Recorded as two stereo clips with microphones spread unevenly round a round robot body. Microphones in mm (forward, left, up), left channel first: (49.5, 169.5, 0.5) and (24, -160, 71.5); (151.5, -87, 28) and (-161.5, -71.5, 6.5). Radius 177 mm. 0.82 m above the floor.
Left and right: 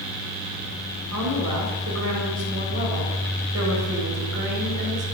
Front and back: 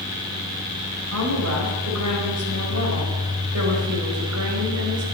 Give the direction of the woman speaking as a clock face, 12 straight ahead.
5 o'clock.